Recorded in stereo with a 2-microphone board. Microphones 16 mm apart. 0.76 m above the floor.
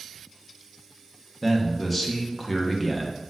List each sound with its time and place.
1.4 s a man speaking: 10° left (ahead or behind), 0.6 m